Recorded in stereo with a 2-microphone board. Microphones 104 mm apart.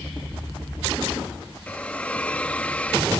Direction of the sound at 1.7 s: 15° left (ahead or behind).